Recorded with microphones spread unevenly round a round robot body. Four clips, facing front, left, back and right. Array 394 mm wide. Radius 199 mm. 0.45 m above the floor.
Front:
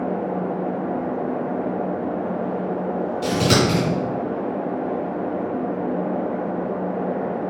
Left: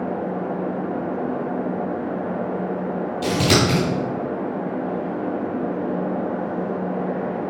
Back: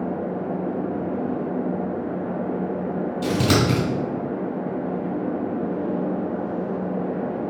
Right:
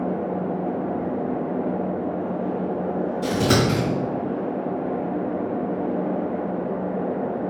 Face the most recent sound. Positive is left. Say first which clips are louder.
# left 2 dB, front 1 dB
turn(degrees=160)